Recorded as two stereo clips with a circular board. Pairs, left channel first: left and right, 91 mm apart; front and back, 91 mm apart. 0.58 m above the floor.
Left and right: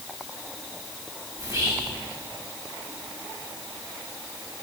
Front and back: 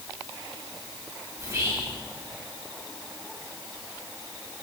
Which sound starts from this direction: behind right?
Whispering, at 1.4 s.